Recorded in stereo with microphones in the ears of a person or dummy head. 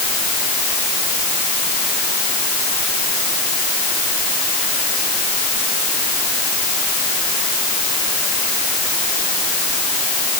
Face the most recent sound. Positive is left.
No sound to turn to.